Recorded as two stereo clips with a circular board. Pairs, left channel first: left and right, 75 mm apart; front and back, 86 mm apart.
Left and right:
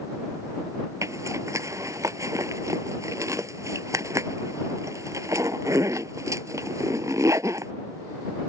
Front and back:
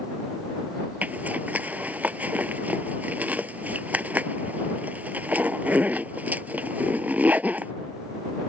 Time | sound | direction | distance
1.0 | a zipper | 115° right | ?